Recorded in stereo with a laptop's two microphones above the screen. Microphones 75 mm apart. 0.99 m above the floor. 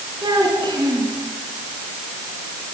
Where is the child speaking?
75° right (ahead or behind), 7 m.